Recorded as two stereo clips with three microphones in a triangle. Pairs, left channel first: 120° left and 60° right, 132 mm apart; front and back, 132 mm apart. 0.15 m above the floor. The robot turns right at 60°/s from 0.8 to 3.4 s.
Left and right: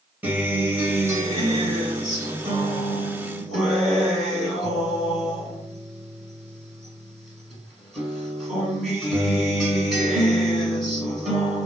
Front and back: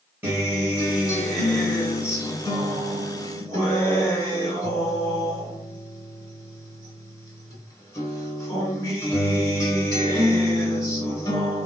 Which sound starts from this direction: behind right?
A guitar, at 0.2 s.